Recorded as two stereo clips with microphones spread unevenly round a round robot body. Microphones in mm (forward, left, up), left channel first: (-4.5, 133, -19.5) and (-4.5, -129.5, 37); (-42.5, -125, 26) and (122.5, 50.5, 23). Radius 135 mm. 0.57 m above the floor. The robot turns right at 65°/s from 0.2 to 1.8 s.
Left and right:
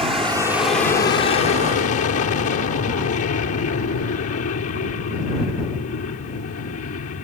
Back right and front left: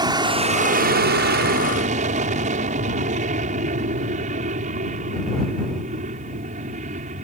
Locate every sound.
0.0 s an aircraft: 15° right; by 7.2 s 90° left